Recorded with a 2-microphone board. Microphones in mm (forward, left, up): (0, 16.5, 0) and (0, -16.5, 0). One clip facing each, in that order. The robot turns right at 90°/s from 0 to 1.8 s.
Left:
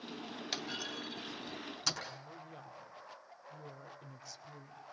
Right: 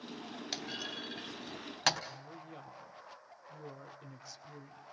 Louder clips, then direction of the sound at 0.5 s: Even; 5° left (ahead or behind).